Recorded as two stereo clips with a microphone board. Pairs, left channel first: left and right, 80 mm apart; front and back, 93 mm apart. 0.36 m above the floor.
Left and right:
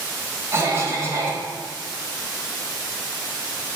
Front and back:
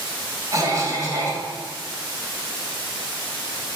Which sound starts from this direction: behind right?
A cough, at 0.5 s.